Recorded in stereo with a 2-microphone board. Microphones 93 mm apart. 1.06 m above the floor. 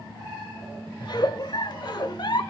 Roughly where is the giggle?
Left.